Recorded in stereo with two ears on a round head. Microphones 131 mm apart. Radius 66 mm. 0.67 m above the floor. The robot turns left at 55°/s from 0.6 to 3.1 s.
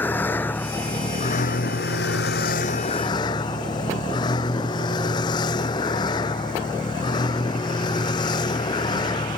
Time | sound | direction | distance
0.0 | a vehicle | 165° left | ?